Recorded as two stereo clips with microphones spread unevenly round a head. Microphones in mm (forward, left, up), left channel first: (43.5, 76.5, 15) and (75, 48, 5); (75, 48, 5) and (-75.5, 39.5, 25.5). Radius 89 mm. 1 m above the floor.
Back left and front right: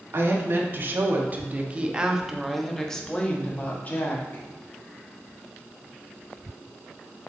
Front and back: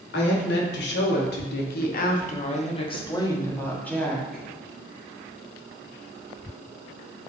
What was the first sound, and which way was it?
A woman speaking, 10° right.